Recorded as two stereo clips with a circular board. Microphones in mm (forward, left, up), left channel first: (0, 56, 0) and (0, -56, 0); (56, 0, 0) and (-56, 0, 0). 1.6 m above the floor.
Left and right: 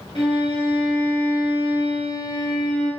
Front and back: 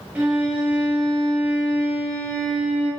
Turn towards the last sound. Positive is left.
turn(degrees=105)